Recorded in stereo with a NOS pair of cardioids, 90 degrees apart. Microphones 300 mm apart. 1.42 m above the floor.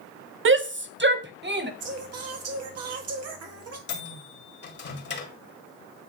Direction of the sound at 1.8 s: 60° right.